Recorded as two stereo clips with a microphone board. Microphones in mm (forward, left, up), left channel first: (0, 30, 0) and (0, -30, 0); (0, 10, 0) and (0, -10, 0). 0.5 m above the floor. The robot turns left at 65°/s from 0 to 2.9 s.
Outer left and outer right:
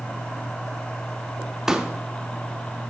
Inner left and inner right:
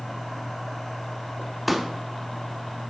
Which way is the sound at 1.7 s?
10° right (ahead or behind).